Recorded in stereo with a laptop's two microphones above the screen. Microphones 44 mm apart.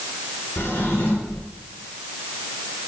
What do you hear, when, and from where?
0.6 s a drawer: 60° left (ahead or behind), 3.5 m